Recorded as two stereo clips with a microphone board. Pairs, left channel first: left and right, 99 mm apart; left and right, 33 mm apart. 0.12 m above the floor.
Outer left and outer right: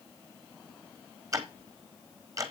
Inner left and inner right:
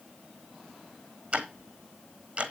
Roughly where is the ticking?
Right.